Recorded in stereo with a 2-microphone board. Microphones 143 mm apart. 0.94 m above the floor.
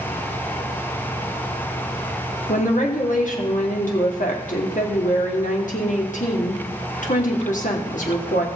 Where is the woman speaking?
65° left (ahead or behind), 2.5 m.